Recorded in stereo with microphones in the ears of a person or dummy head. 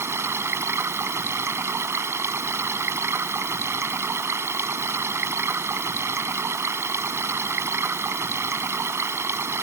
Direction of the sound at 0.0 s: 20° right (ahead or behind).